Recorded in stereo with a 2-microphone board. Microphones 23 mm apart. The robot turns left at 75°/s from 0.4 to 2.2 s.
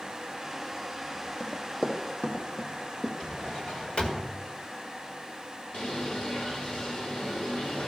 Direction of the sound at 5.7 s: 60° left (ahead or behind).